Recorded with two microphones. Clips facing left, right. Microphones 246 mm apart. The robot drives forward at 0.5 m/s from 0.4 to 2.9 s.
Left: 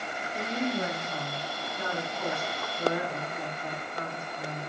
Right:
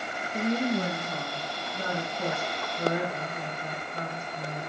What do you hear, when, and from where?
0.3 s a woman speaking: 45° right (ahead or behind), 2.5 m; by 4.7 s 30° right (ahead or behind), 3.5 m